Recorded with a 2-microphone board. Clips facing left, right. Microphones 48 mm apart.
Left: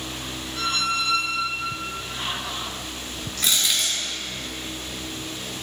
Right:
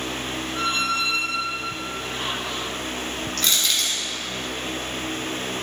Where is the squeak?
30° right (ahead or behind), 1.6 m.